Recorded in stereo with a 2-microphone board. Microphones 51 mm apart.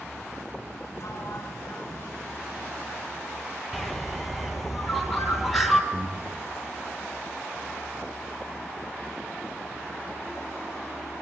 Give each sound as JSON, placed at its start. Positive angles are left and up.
{"t": 1.0, "sound": "a sliding door", "side_deg": 65, "distance_m": 2.5}
{"t": 3.7, "sound": "a bird", "side_deg": 0, "distance_m": 1.8}
{"t": 5.9, "sound": "breathing", "side_deg": -70, "distance_m": 3.5}